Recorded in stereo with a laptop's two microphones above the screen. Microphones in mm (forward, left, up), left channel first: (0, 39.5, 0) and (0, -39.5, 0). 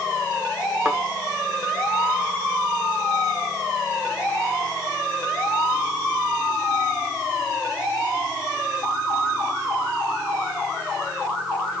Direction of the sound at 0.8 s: 15° right (ahead or behind).